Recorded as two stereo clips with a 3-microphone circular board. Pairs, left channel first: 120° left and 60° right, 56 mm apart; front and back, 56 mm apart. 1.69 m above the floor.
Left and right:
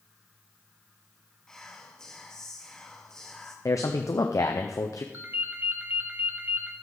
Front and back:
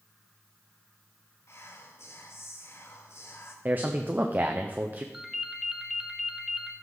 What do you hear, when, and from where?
1.5 s whispering: 40° left, 1.0 m
3.6 s a man speaking: 125° left, 0.7 m
5.1 s a ringtone: 95° right, 1.2 m